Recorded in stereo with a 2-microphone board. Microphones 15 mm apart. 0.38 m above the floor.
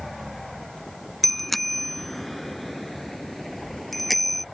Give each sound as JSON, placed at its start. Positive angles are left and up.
{"t": 1.2, "sound": "a bicycle bell", "side_deg": 5}